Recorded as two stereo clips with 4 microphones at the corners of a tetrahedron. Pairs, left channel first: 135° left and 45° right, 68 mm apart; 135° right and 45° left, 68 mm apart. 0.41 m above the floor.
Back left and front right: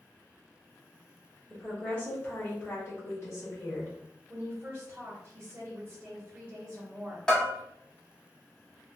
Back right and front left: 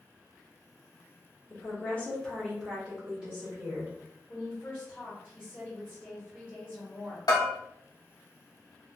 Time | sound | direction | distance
1.5 | a woman speaking | 155° right | 1.0 m
4.3 | a woman speaking | 85° right | 1.6 m
7.3 | a bell | 145° right | 0.9 m